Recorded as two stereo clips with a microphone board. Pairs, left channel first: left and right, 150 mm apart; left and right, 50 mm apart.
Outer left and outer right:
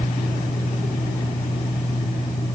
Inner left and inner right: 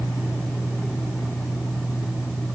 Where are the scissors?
I don't hear scissors.